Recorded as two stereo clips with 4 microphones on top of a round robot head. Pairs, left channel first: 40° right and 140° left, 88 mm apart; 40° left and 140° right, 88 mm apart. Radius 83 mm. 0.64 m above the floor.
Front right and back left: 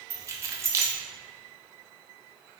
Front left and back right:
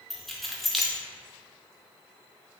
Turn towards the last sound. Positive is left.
turn(degrees=125)